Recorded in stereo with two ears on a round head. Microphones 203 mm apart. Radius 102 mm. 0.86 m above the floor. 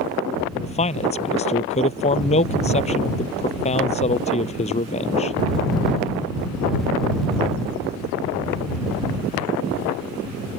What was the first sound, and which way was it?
A man speaking, 30° left (ahead or behind).